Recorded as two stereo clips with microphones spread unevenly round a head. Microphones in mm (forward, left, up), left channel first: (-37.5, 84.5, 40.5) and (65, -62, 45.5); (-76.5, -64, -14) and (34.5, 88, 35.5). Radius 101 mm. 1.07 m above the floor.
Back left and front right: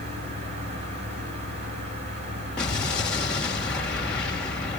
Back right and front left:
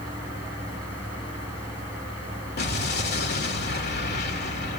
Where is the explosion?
150° right, 2 m.